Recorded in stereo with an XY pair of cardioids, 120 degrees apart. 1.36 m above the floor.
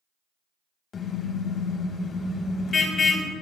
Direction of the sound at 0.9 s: 45° left.